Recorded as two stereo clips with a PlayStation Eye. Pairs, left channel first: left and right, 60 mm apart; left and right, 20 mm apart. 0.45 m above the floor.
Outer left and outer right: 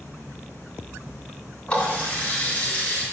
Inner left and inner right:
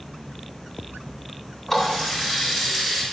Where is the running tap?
25° left (ahead or behind), 2.5 m.